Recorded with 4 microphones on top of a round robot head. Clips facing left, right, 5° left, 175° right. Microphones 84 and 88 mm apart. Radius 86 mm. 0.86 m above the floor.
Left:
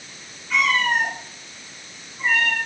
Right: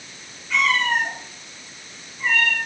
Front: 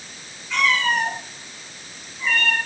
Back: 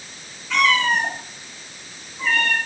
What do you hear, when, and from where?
0.5 s a cat meowing: 175° left, 4.5 m; by 2.6 s 160° left, 3.5 m